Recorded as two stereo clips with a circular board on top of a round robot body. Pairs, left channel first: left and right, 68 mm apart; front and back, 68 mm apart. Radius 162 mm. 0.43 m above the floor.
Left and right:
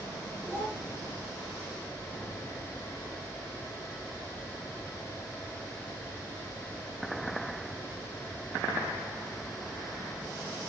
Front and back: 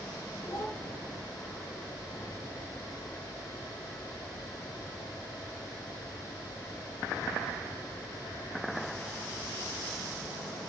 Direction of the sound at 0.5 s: 35° right.